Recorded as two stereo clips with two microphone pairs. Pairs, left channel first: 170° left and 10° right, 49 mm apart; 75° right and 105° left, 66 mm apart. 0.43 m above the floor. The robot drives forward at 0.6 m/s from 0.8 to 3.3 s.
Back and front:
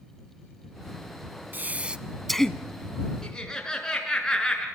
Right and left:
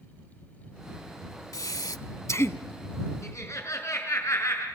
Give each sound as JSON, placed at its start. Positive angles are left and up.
{"t": 1.5, "sound": "breathing", "azimuth_deg": -60, "distance_m": 0.6}
{"t": 3.2, "sound": "laughter", "azimuth_deg": -115, "distance_m": 5.5}